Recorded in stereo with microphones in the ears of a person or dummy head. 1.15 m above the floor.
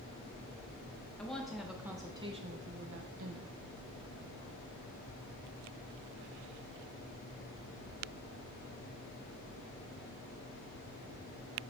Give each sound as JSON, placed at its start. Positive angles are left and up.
{"t": 1.2, "sound": "a woman speaking", "side_deg": 5, "distance_m": 1.2}